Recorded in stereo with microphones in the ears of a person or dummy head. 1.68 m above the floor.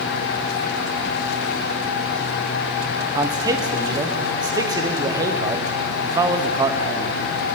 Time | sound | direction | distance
3.1 | a man speaking | 20° right (ahead or behind) | 0.9 m